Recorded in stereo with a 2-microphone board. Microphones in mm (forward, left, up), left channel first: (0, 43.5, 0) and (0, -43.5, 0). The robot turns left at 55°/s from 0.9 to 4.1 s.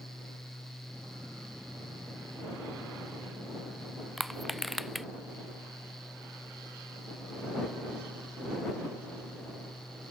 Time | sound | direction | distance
4.2 | crushing | centre (ahead or behind) | ?